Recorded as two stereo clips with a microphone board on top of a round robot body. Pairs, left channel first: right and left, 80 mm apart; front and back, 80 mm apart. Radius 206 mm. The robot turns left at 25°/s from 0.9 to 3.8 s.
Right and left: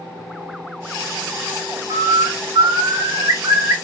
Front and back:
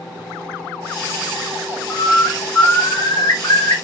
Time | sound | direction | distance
1.9 | a bird | 80° left | 1.1 m